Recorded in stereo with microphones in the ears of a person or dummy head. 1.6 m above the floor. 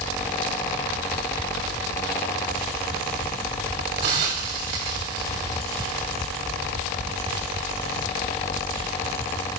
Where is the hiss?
25° right (ahead or behind), 1.3 m.